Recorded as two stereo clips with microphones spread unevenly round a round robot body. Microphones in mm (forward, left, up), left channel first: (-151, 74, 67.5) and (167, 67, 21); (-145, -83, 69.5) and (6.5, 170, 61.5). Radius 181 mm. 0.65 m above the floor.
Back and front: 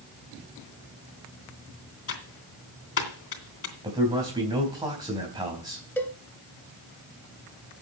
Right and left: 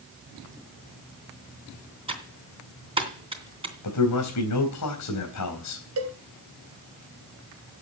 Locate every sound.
2.1 s typing on a keyboard: 130° left, 3 m
3.8 s a man speaking: 80° right, 3.5 m
6.0 s a cowbell: 95° left, 1.9 m